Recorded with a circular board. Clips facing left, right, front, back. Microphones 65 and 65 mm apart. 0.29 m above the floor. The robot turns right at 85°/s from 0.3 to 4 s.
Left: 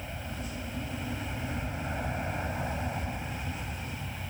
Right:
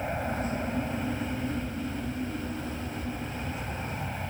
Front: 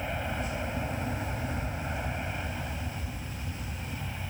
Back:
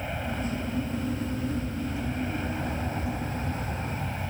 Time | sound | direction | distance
0.0 | an aircraft | 85° right | ?